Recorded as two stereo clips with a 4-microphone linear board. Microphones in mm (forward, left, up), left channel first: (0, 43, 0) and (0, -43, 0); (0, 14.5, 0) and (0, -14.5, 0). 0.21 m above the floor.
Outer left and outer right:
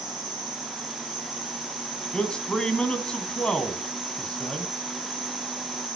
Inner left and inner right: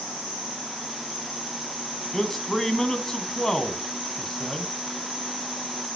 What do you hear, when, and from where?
0.0 s an insect: centre (ahead or behind), 9.5 m
2.1 s a man speaking: 10° left (ahead or behind), 1.7 m